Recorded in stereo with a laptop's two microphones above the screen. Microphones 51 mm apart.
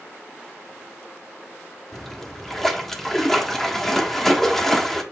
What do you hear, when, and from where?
1.9 s a splash: 5° left (ahead or behind), 1.6 m